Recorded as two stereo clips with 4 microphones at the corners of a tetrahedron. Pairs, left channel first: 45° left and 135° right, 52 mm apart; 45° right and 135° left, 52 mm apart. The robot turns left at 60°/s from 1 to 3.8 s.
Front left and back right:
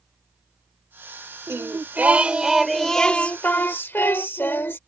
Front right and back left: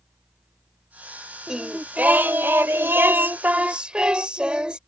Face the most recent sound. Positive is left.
turn(degrees=70)